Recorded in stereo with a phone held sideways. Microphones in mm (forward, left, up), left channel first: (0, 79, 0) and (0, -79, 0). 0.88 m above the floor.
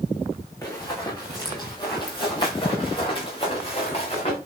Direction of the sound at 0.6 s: 20° left (ahead or behind).